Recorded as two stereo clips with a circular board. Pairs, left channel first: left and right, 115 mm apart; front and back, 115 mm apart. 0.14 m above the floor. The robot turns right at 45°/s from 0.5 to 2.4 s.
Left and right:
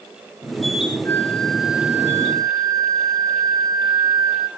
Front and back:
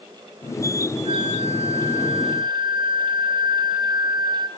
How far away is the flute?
About 1.1 m.